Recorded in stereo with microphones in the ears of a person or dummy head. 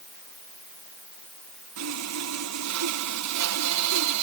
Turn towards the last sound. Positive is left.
turn(degrees=-85)